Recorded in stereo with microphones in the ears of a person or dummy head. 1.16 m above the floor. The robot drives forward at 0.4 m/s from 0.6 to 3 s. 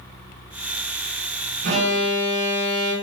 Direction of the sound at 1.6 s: 55° right (ahead or behind).